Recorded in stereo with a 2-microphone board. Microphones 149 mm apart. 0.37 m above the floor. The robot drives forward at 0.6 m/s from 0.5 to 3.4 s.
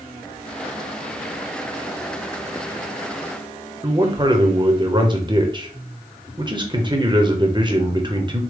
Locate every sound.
3.8 s a man speaking: 30° right (ahead or behind), 1.0 m